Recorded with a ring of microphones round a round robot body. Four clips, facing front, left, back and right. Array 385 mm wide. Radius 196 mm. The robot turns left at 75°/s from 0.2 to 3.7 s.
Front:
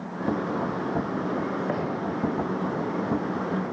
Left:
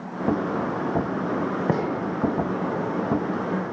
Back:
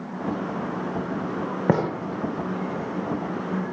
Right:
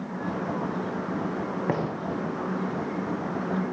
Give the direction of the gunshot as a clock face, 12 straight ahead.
7 o'clock.